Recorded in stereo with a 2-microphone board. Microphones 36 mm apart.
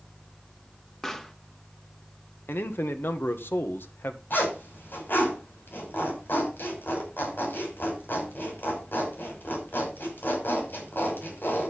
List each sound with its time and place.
1.0 s a pop: 15° left (ahead or behind), 1.2 m
2.5 s a man speaking: 85° left, 1.5 m
4.3 s a zipper: 65° left (ahead or behind), 6 m